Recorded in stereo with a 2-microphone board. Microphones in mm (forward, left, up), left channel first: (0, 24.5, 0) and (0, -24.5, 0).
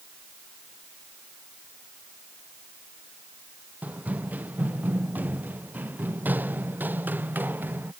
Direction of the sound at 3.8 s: 30° right (ahead or behind).